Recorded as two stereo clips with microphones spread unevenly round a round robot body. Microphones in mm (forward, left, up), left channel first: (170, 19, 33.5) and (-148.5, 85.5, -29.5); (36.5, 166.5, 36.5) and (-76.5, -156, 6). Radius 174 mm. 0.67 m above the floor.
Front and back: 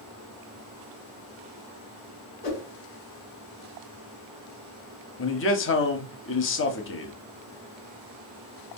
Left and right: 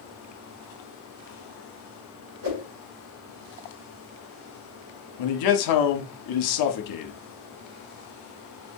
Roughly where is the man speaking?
Ahead left.